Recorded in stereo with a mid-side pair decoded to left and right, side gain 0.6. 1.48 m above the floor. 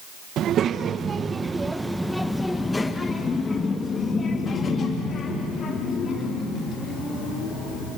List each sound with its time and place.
0.4 s a child speaking: 55° right, 1.2 m; by 7.9 s 50° left, 4 m